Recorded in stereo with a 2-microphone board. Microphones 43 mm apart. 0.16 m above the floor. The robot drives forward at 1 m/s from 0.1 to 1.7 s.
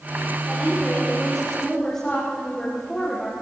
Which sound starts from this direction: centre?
A woman speaking, at 0.5 s.